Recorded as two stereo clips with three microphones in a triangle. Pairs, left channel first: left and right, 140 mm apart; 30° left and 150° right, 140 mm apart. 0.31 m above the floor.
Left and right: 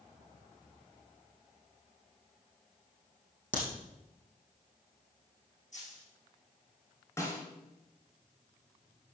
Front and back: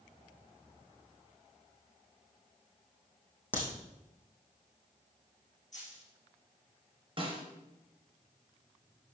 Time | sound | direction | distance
3.5 | a crack | 105° left | 3.5 m
5.7 | a dropped coin | 60° left | 5.5 m
7.2 | a snare drum | 160° left | 3.5 m